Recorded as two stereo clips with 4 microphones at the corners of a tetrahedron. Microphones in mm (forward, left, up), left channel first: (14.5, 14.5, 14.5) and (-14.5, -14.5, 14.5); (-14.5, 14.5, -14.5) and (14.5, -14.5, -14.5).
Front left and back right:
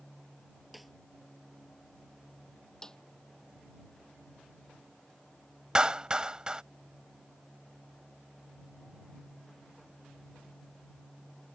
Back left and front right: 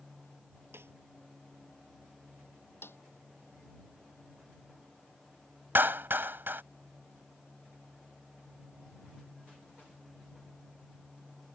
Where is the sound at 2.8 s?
125° left.